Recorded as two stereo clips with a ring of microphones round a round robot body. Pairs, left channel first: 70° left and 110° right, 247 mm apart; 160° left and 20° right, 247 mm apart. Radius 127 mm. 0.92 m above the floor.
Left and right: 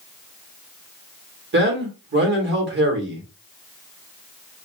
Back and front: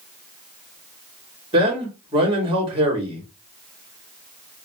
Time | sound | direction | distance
1.5 | a man speaking | 85° right | 1.4 m